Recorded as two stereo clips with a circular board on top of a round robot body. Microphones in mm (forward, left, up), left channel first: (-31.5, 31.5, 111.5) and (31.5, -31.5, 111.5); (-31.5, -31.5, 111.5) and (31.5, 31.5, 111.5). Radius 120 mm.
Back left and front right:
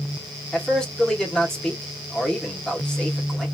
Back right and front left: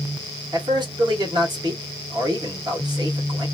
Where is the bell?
No bell in this recording.